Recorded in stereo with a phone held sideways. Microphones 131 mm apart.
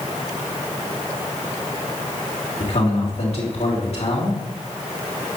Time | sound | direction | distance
2.6 | a man speaking | 55° left (ahead or behind) | 3 m